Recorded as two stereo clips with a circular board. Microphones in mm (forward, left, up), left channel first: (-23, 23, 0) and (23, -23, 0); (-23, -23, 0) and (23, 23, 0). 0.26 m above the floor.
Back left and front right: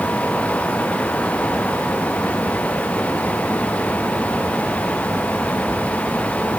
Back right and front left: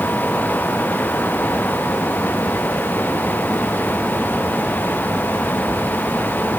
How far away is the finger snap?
No finger snap in this recording.